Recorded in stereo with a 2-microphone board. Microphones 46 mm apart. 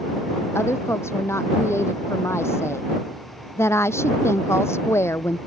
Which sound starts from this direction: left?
A woman speaking, at 0.6 s.